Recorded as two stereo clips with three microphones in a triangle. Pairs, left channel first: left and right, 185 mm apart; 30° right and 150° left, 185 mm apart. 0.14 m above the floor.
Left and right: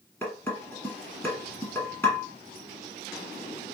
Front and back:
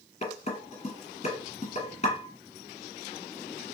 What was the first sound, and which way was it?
Dishes clattering, 15° left.